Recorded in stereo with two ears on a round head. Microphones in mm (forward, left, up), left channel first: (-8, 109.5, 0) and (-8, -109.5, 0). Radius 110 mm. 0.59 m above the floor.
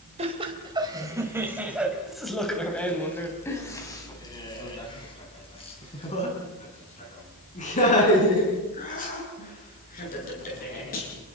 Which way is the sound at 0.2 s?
25° right (ahead or behind).